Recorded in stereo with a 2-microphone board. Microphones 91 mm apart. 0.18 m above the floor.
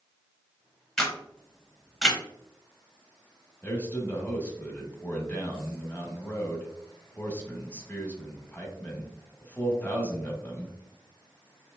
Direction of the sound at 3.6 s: 20° left (ahead or behind).